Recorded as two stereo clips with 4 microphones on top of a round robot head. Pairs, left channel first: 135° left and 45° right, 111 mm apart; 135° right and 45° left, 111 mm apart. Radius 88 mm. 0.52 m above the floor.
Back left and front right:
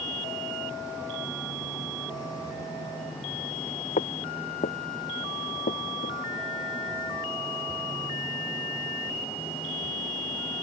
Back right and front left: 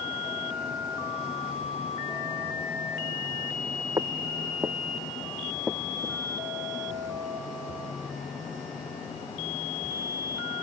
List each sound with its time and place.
4.0 s footsteps: 110° left; by 6.2 s 135° left